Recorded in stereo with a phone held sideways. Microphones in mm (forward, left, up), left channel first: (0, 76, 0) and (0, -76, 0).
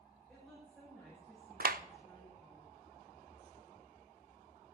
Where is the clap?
65° right (ahead or behind), 0.5 m.